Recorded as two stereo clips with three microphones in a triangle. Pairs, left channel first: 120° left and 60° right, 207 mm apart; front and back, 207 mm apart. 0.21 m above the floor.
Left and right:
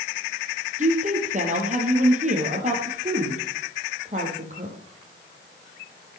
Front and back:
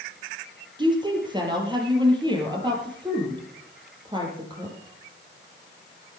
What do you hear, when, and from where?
0.8 s a woman speaking: 110° right, 5 m